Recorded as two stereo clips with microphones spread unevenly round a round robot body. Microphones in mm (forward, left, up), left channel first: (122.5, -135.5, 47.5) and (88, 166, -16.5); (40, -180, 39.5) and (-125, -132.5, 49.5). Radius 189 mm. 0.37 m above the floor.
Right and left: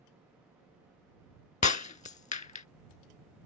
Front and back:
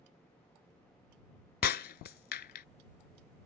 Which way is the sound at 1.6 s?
25° right.